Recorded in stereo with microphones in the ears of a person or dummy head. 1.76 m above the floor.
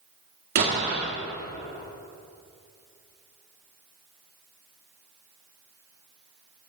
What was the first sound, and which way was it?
An explosion, 45° right (ahead or behind).